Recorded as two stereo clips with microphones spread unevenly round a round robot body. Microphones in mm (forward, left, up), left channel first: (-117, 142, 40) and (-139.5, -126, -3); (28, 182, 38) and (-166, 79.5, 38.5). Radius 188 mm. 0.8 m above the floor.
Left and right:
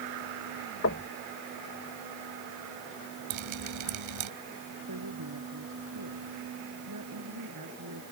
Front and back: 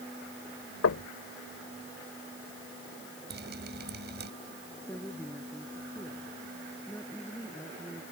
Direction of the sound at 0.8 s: 30° left.